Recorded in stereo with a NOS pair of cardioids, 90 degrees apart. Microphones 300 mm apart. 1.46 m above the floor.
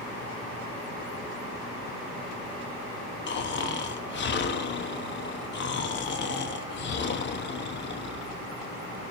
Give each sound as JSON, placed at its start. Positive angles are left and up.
{"t": 3.3, "sound": "snoring", "azimuth_deg": 35, "distance_m": 0.7}